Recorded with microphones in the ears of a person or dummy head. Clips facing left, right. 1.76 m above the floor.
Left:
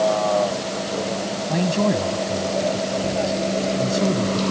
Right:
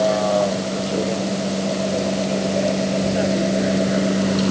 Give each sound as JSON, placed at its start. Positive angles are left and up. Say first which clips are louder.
{"t": 0.0, "sound": "a vehicle", "louder": "right 1 dB", "side_deg": -25}
{"t": 1.5, "sound": "a man speaking", "louder": "left 2 dB", "side_deg": 80}